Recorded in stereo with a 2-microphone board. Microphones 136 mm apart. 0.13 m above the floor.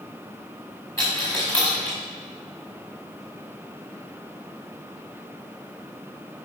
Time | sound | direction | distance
1.0 | a dropped coin | 20° left (ahead or behind) | 5 m